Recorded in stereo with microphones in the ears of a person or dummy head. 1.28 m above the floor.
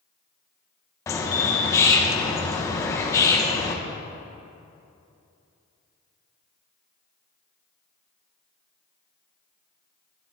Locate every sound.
1.1 s a bird: 20° left (ahead or behind), 0.9 m